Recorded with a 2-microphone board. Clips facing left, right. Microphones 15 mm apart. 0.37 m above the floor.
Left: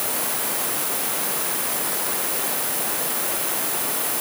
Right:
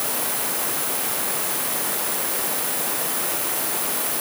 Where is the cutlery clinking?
I don't hear cutlery clinking.